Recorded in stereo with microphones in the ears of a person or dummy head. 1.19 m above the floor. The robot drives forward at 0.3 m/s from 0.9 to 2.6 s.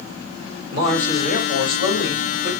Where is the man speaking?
70° left (ahead or behind), 2.5 m; by 2.5 s 75° left (ahead or behind), 2.5 m.